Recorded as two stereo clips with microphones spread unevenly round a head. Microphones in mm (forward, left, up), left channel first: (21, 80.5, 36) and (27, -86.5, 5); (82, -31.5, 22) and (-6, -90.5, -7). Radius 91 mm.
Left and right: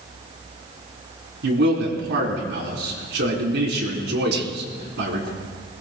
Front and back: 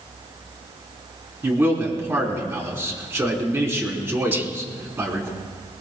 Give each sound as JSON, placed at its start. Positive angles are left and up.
{"t": 1.4, "sound": "a man speaking", "azimuth_deg": -80, "distance_m": 4.0}
{"t": 4.3, "sound": "whispering", "azimuth_deg": -80, "distance_m": 1.3}